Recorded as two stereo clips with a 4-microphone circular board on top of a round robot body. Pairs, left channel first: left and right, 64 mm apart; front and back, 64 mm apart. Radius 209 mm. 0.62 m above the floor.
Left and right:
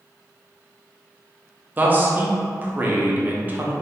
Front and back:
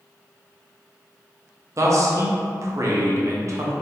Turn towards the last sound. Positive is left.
turn(degrees=-150)